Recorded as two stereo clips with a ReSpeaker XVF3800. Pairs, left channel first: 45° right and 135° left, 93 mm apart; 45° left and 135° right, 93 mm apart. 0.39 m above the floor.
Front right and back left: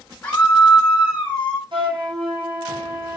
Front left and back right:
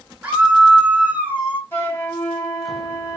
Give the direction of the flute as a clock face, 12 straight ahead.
8 o'clock.